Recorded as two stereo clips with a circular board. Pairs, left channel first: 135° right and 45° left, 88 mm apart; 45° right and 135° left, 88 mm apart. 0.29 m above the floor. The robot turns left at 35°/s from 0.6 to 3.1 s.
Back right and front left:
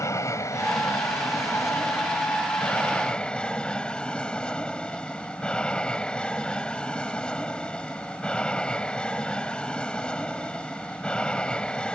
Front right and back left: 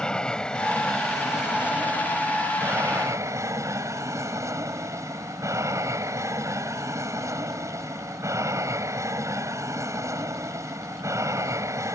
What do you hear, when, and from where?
0.0 s an aircraft: 120° right; by 11.9 s 155° left